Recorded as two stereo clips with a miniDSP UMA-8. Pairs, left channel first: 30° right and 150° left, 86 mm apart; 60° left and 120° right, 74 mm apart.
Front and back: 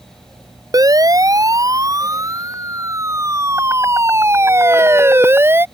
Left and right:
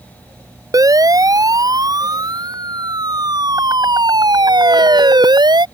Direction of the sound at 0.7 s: 160° right.